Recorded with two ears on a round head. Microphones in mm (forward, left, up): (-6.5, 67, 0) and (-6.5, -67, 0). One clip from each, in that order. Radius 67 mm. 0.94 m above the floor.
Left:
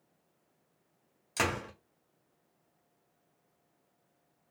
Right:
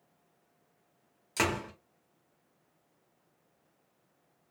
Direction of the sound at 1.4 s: Centre (ahead or behind).